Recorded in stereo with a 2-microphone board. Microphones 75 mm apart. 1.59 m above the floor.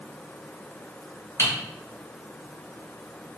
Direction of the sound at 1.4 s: 40° left (ahead or behind).